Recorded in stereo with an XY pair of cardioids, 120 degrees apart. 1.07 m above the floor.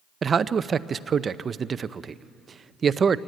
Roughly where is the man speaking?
Ahead right.